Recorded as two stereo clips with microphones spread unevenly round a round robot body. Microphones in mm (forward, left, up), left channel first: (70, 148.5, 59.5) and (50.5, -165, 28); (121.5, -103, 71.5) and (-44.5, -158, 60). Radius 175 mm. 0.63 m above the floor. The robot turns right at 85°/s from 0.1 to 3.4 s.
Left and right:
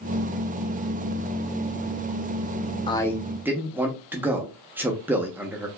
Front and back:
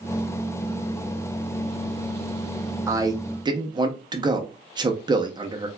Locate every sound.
2.9 s a man speaking: 155° left, 0.7 m; by 5.7 s 160° right, 0.7 m